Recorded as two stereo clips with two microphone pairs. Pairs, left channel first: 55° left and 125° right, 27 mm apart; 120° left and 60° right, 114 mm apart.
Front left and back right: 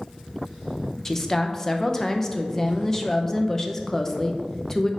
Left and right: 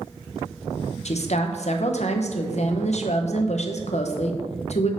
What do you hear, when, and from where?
1.1 s a woman speaking: 130° left, 0.7 m